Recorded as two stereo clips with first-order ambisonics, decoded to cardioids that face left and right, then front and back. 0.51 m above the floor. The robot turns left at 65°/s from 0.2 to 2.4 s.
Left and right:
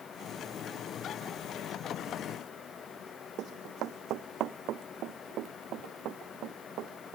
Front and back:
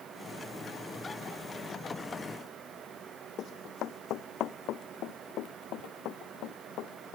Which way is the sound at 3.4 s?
50° right.